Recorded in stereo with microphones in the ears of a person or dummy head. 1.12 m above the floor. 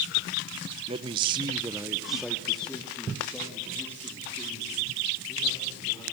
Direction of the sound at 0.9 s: 25° right (ahead or behind).